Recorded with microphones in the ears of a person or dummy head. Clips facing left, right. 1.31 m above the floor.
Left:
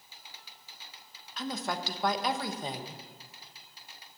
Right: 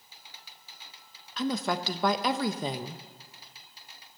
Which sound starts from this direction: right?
A woman speaking, at 1.4 s.